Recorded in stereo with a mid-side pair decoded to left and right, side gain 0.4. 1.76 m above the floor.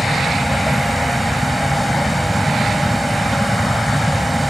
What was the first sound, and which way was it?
A vehicle, straight ahead.